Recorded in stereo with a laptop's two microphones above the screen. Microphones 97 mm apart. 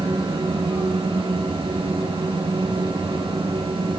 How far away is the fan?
About 6 m.